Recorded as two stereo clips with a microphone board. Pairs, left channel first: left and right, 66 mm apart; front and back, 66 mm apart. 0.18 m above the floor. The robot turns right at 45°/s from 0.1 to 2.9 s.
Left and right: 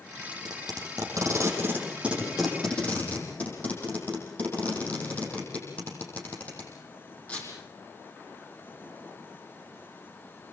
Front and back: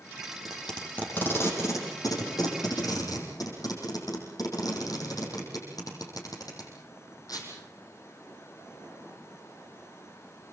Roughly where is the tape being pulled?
Right.